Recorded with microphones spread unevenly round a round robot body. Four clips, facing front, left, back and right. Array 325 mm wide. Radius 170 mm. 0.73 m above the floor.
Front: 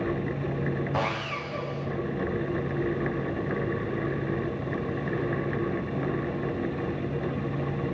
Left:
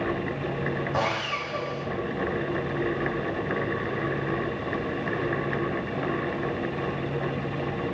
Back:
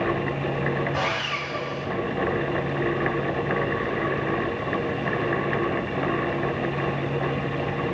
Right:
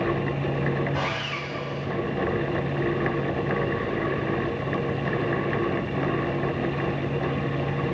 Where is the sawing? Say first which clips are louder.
Left 2 dB, back 2 dB; 70° left, 1.3 m.